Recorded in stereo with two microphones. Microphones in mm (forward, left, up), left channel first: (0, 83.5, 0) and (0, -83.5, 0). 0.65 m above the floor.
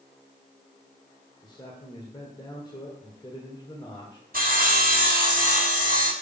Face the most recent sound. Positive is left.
turn(degrees=-60)  # may be behind; listen again after turning